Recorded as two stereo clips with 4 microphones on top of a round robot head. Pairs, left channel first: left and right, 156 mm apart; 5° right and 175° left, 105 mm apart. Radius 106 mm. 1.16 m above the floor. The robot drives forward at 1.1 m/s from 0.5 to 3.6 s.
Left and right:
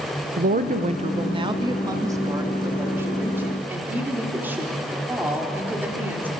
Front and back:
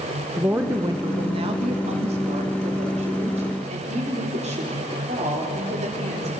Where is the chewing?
No chewing in this recording.